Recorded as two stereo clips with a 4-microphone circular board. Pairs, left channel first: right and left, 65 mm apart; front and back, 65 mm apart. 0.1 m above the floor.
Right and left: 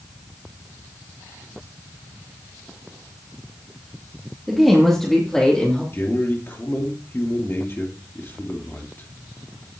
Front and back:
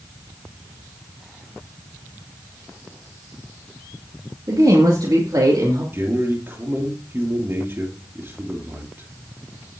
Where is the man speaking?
135° right, 2.5 m.